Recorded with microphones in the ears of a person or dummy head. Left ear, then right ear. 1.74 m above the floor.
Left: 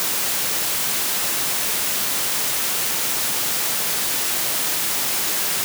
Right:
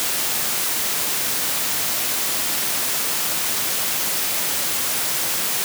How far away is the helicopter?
I don't hear a helicopter.